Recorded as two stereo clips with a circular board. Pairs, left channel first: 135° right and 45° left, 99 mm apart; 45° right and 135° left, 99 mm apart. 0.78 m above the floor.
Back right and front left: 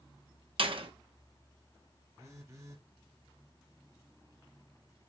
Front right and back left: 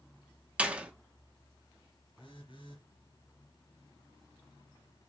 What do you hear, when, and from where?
0.6 s a door slam: 60° left, 1.1 m
2.2 s a phone buzzing: 15° right, 3 m